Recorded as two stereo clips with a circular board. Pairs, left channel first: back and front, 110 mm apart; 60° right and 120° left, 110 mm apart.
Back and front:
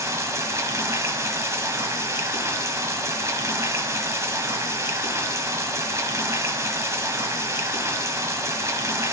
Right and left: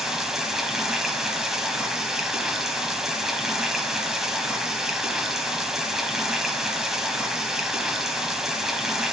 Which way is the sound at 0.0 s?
35° left.